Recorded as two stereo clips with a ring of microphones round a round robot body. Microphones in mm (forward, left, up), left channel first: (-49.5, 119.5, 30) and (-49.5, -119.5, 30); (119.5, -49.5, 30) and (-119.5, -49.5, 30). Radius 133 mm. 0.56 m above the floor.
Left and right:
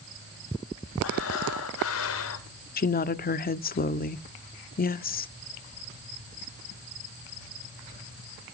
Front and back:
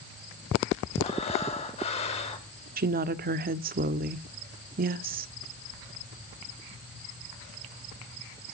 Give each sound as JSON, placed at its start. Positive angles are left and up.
{"t": 1.0, "sound": "breathing", "azimuth_deg": 65, "distance_m": 3.0}
{"t": 2.8, "sound": "a woman speaking", "azimuth_deg": 135, "distance_m": 1.0}